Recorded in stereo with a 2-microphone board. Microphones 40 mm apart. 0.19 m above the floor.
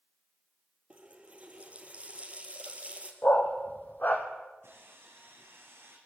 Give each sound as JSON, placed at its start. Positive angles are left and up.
{"t": 0.9, "sound": "a running tap", "side_deg": -30, "distance_m": 3.0}
{"t": 3.2, "sound": "a dog barking", "side_deg": 50, "distance_m": 3.0}
{"t": 4.6, "sound": "sawing", "side_deg": -75, "distance_m": 5.0}